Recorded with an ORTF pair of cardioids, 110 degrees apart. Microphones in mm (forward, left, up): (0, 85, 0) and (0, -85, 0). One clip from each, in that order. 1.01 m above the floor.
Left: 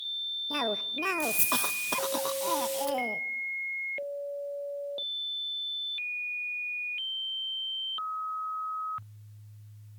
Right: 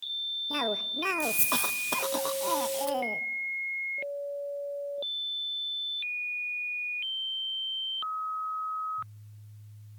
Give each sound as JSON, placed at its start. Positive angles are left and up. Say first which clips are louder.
{"t": 0.5, "sound": "a cough", "louder": "even", "azimuth_deg": 5, "distance_m": 0.5}